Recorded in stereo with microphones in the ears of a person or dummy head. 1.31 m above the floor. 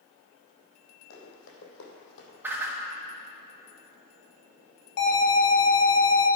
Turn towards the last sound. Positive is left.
turn(degrees=50)  # may be behind; listen again after turning